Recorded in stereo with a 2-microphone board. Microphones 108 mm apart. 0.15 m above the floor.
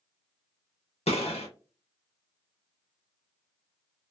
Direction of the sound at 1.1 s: 80° left.